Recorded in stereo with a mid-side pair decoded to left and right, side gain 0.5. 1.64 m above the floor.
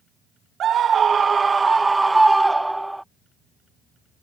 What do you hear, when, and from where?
0.6 s a scream: 55° right; by 3.0 s 5° right